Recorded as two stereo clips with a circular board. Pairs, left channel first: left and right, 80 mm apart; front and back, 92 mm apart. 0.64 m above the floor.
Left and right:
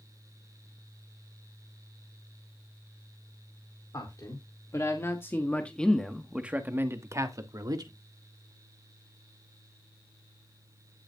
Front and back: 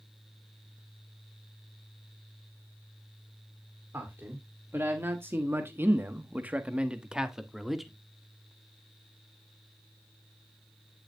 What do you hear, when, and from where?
3.9 s a man speaking: 120° left, 2 m; by 7.9 s 90° right, 1.8 m